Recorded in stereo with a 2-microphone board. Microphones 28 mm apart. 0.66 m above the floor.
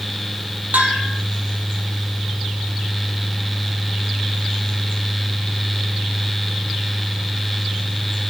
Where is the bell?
80° right, 4.5 m.